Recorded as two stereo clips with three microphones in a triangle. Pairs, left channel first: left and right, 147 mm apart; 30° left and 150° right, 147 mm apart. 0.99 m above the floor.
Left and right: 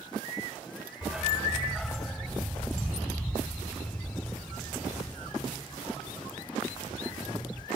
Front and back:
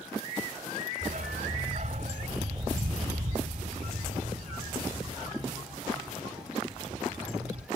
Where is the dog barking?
170° right; by 7.7 s 170° left.